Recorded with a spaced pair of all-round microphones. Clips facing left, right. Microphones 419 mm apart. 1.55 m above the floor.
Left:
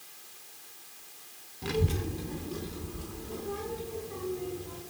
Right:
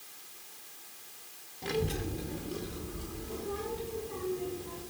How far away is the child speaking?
About 0.6 m.